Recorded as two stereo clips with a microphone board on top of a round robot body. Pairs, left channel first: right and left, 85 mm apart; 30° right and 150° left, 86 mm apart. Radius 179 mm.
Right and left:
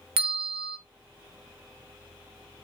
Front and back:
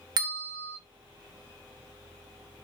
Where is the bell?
105° left, 0.6 m.